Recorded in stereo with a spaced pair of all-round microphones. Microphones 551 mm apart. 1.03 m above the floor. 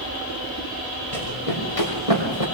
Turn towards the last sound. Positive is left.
turn(degrees=80)